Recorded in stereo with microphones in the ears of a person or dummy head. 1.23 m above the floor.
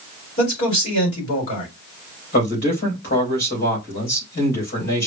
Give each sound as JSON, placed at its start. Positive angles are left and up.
{"t": 0.4, "sound": "a man speaking", "side_deg": 40, "distance_m": 4.0}
{"t": 2.3, "sound": "a man speaking", "side_deg": 50, "distance_m": 3.0}